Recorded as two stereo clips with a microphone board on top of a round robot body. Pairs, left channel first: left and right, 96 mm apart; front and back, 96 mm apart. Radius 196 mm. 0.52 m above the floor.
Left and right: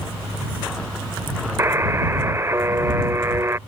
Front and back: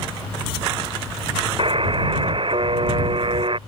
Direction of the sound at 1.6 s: 150° right.